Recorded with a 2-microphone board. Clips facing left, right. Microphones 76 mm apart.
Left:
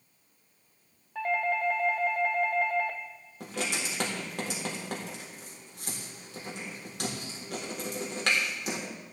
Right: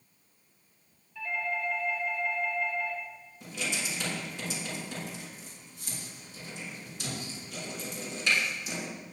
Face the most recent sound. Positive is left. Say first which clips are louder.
# left 2 dB
turn(degrees=65)  # may be behind; listen again after turning